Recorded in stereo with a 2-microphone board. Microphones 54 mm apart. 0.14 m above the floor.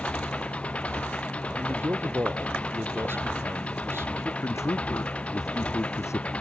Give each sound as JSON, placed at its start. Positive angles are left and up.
{"t": 0.0, "sound": "an engine running", "side_deg": 25}
{"t": 1.6, "sound": "a man speaking", "side_deg": -50}
{"t": 4.4, "sound": "a man speaking", "side_deg": 65}